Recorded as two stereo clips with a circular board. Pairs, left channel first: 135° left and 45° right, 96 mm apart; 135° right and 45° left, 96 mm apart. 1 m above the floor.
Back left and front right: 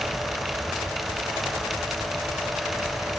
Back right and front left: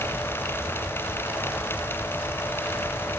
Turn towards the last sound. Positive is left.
No sound to turn to.